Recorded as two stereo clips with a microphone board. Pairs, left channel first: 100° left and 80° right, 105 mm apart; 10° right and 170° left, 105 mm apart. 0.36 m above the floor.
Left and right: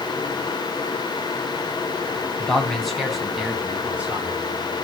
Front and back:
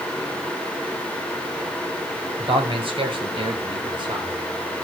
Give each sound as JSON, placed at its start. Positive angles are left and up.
{"t": 2.4, "sound": "a man speaking", "azimuth_deg": 180, "distance_m": 2.5}